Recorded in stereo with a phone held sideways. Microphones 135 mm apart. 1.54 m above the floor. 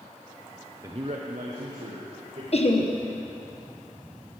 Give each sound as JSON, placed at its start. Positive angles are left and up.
{"t": 0.8, "sound": "a man speaking", "side_deg": -25, "distance_m": 0.8}
{"t": 2.5, "sound": "laughter", "side_deg": 50, "distance_m": 1.2}